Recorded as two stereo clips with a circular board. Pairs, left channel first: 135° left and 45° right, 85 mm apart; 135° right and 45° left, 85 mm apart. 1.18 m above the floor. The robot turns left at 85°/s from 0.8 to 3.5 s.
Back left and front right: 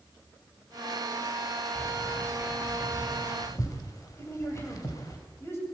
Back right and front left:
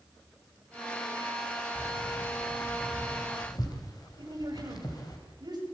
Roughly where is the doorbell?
I don't hear a doorbell.